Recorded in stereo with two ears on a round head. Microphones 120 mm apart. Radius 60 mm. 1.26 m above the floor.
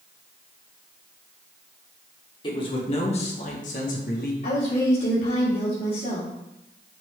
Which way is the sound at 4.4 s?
70° left (ahead or behind).